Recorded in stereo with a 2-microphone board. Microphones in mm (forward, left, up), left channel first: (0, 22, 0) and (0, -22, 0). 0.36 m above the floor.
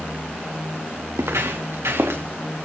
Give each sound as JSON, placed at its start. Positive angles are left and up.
{"t": 1.1, "sound": "footsteps", "side_deg": -80, "distance_m": 2.5}